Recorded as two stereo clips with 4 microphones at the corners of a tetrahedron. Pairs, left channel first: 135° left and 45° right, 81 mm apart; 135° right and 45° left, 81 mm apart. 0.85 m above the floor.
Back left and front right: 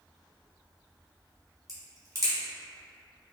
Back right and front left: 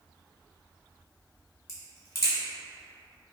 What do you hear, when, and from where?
1.7 s a crack: 90° right, 1.3 m